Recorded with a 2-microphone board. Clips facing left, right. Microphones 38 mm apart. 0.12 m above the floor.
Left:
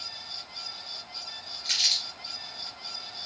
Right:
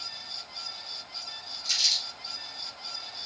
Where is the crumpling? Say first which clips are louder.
Left 1 dB; 40° left (ahead or behind), 2 m.